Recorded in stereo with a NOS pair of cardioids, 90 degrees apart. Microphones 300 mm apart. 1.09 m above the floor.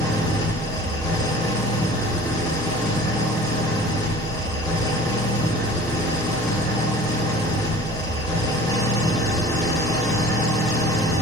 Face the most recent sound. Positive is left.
turn(degrees=10)